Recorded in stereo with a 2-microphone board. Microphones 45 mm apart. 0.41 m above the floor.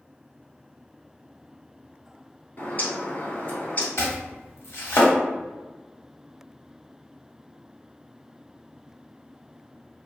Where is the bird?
40° left (ahead or behind), 1.0 m.